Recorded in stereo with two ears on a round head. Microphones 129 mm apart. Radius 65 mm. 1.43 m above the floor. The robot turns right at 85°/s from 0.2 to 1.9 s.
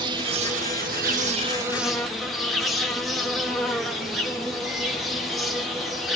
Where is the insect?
145° right, 2.5 m; by 6.2 s straight ahead, 2.5 m.